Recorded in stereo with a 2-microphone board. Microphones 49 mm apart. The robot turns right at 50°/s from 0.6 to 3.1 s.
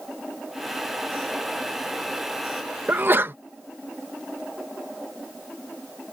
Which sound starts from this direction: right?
A sneeze, at 2.9 s.